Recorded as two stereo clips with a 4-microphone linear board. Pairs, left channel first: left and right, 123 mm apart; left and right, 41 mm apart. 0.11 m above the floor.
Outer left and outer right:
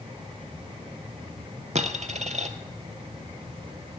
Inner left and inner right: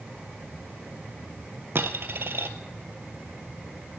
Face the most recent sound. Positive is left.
turn(degrees=-65)  # may be behind; listen again after turning